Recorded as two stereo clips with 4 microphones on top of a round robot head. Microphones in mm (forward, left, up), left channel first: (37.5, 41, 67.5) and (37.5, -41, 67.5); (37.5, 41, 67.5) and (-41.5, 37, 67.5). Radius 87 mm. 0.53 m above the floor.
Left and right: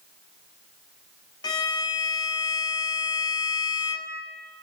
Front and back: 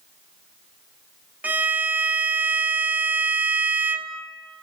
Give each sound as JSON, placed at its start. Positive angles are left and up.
{"t": 1.4, "sound": "a violin", "azimuth_deg": 115, "distance_m": 0.5}